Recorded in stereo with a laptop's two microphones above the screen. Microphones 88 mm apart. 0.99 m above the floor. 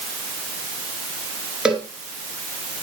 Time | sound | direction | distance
1.6 | a cowbell | 10° right (ahead or behind) | 2 m